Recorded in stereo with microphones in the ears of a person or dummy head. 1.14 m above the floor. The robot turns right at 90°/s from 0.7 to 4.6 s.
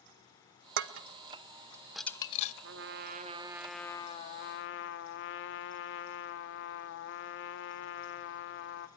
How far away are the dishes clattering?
About 0.6 m.